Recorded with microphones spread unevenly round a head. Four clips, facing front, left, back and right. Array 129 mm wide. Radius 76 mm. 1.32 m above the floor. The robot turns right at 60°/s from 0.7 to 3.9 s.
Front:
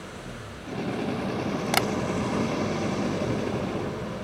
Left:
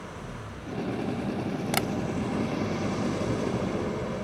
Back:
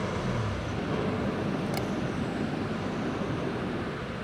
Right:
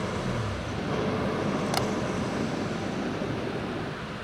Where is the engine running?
110° right; by 4.2 s 80° left.